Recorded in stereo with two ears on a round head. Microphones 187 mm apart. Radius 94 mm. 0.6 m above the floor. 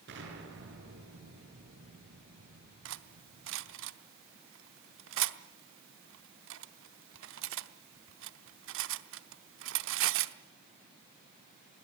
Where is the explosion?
60° right (ahead or behind), 7 m.